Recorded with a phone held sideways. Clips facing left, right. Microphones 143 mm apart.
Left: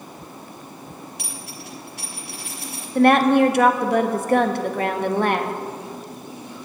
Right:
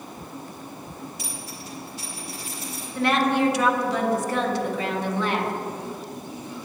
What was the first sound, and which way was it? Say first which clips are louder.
A dropped coin: even; 70° left (ahead or behind).